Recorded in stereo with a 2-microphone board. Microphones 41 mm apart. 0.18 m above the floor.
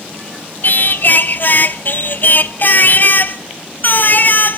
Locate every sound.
0.6 s singing: 50° left (ahead or behind), 0.6 m